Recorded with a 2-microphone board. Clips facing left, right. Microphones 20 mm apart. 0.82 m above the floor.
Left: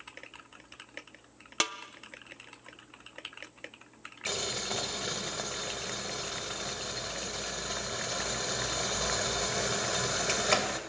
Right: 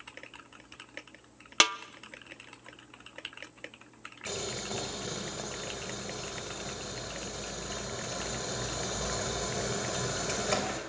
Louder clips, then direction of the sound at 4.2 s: Left 3 dB; 35° left (ahead or behind).